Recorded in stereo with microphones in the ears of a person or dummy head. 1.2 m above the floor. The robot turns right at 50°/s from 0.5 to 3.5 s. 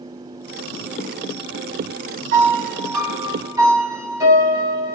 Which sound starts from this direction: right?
A piano, at 2.3 s.